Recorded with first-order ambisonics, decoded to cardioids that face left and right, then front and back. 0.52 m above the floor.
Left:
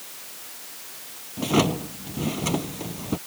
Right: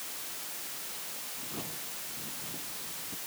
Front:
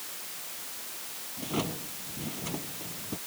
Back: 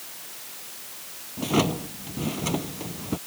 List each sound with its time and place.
1.4 s a drawer: 120° left